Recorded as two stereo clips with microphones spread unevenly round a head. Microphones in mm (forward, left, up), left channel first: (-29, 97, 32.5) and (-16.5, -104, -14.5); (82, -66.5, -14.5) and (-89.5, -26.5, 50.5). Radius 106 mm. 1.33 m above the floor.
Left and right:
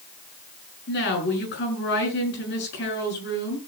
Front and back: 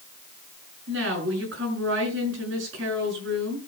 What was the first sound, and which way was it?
A woman speaking, 130° left.